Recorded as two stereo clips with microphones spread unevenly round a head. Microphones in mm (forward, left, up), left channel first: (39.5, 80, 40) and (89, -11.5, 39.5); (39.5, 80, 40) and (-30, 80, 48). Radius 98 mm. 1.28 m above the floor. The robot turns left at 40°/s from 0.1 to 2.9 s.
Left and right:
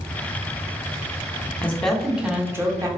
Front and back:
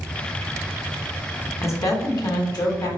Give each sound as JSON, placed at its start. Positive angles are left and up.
{"t": 1.6, "sound": "a woman speaking", "azimuth_deg": 45, "distance_m": 1.1}